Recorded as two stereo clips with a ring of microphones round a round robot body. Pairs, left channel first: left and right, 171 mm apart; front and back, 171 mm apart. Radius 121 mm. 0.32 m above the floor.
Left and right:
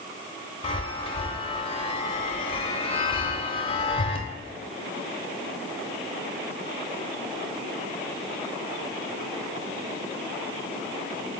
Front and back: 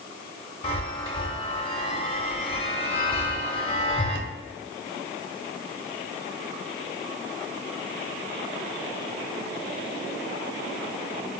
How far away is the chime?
About 0.8 m.